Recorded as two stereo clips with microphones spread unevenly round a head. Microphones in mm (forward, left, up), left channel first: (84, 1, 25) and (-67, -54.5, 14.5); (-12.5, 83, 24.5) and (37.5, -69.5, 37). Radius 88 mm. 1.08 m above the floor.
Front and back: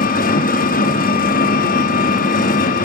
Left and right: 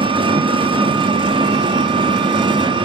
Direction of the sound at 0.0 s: 15° right.